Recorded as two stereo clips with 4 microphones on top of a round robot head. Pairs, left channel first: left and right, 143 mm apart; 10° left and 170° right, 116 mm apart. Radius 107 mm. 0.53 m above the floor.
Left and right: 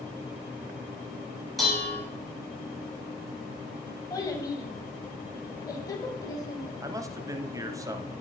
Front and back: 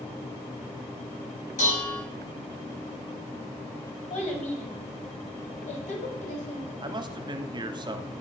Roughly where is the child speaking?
Ahead left.